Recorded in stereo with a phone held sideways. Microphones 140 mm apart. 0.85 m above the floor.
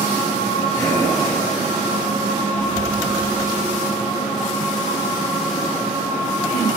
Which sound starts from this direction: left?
Breathing, at 0.8 s.